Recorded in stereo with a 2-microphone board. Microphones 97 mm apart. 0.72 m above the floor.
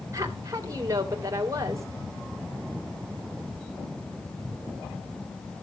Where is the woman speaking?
35° right (ahead or behind), 3 m.